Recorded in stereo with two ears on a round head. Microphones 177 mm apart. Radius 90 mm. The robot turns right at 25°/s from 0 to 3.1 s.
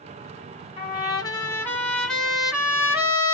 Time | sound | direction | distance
0.8 | a trumpet | 140° left | 1.0 m